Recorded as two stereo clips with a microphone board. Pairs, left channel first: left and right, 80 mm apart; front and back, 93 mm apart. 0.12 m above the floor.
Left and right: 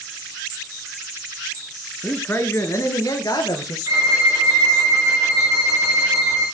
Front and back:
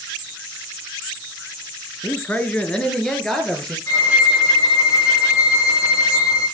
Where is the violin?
50° right, 4.5 m.